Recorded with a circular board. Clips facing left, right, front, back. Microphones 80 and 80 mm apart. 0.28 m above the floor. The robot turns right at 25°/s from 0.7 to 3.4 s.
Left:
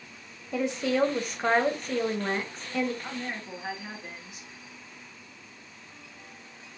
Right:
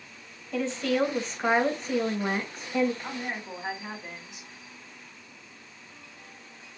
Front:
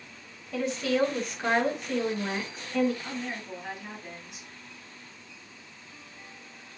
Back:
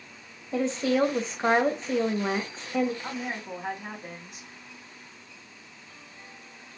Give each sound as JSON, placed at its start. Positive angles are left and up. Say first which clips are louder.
{"t": 0.5, "sound": "a woman speaking", "louder": "even, back 3 dB", "azimuth_deg": 150, "distance_m": 1.3}
{"t": 3.0, "sound": "a woman speaking", "louder": "right 1 dB, back 2 dB", "azimuth_deg": -165, "distance_m": 2.5}